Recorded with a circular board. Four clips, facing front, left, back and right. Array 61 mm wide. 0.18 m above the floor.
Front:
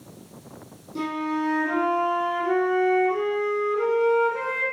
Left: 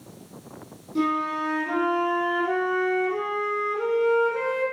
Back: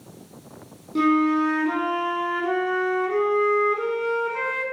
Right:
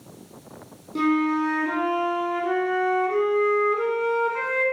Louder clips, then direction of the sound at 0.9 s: Right 3 dB, back 8 dB; 145° right.